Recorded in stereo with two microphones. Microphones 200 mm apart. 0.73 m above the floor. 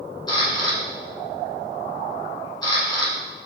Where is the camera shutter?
20° left (ahead or behind), 1.2 m.